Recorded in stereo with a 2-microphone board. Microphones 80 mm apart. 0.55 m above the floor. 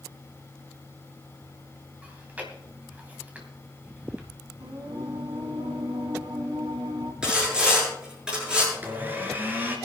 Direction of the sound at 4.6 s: 75° right (ahead or behind).